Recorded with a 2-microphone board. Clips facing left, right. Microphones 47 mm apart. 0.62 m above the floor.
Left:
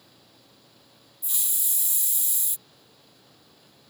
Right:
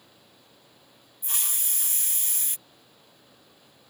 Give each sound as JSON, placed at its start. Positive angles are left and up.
{"t": 1.2, "sound": "a hiss", "side_deg": -45}